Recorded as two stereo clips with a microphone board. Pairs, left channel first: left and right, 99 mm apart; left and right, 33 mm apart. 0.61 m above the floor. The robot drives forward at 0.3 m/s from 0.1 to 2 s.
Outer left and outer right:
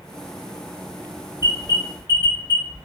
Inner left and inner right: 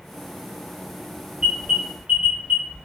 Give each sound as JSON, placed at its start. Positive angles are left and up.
{"t": 1.4, "sound": "an alarm", "side_deg": -30, "distance_m": 1.7}